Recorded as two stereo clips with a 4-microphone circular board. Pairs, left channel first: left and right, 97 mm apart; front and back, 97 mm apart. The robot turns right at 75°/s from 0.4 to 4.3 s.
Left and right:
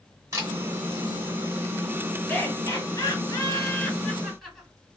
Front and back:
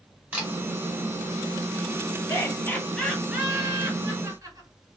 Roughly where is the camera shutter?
Right.